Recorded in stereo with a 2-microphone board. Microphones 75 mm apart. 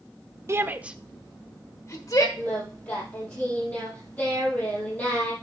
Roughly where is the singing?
Centre.